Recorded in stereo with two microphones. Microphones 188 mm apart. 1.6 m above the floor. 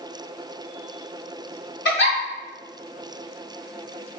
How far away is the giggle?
About 1.0 m.